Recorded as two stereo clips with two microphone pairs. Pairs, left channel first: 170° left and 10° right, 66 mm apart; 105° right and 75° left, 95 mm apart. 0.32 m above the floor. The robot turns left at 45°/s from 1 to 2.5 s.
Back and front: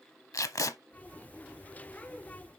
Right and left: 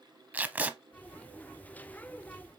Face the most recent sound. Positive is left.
turn(degrees=75)